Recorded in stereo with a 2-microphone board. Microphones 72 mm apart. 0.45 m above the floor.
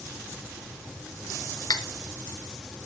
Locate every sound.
1.7 s cutlery clinking: 55° left (ahead or behind), 0.6 m